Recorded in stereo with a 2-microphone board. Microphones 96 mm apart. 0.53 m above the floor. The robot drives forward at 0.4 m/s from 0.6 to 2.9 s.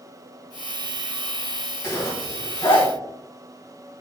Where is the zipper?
45° left (ahead or behind), 1.5 m; by 2.9 s 60° left (ahead or behind), 1.2 m.